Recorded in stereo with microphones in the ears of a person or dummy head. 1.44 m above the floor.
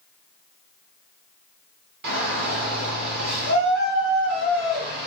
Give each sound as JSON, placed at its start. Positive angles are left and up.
{"t": 2.0, "sound": "a shout", "side_deg": -55, "distance_m": 1.9}